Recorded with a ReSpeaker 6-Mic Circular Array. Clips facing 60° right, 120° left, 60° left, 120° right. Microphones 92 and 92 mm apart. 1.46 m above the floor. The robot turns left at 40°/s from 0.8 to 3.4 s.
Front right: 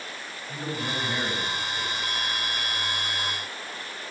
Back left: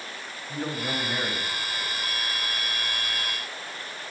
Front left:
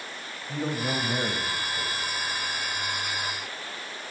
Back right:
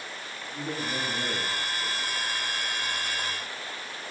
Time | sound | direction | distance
0.5 | a man speaking | 60° left | 7 m